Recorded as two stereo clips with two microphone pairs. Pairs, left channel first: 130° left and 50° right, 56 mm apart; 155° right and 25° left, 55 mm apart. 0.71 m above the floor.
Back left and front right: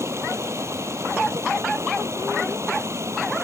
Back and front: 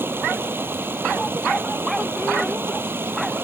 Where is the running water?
20° right.